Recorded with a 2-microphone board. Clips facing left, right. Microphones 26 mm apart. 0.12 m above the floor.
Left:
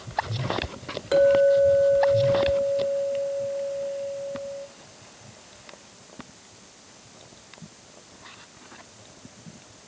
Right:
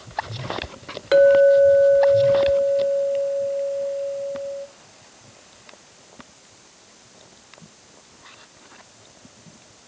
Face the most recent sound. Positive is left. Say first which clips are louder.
# right 5 dB
turn(degrees=-35)  # may be behind; listen again after turning